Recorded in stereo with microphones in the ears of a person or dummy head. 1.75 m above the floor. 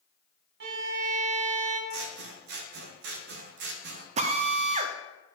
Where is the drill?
40° right (ahead or behind), 0.7 m.